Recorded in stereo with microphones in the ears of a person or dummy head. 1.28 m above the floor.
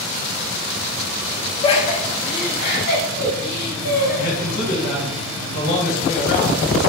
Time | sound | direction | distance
1.6 | laughter | 30° left (ahead or behind) | 0.6 m
4.2 | a man speaking | 70° left (ahead or behind) | 1.6 m